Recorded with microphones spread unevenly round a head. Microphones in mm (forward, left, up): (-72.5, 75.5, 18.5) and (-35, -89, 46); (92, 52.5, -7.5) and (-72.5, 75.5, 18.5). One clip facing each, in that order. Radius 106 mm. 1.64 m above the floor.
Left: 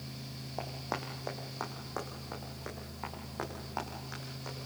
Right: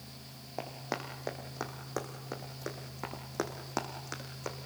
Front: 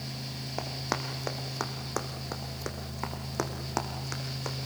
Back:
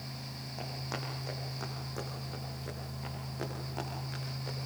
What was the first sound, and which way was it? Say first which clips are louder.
Running footsteps: right 1 dB, front 6 dB; straight ahead.